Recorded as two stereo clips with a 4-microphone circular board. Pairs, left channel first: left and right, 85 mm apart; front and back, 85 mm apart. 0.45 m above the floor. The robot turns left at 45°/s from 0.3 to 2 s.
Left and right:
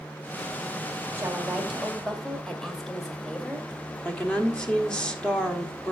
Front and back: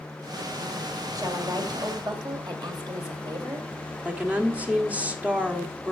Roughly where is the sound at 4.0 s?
Behind left.